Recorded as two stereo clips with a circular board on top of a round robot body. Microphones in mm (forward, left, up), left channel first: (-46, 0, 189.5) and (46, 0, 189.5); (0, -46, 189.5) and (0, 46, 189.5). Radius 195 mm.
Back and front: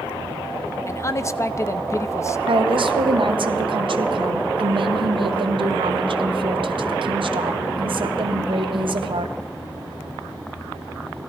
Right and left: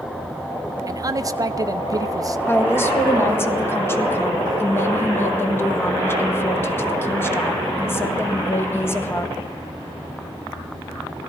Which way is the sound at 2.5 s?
25° right.